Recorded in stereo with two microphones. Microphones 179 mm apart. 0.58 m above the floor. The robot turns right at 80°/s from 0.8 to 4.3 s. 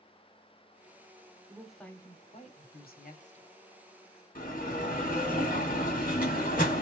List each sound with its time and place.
1.5 s a woman speaking: 20° right, 1.2 m; by 3.5 s 140° left, 1.2 m
4.3 s a bell: 55° left (ahead or behind), 2 m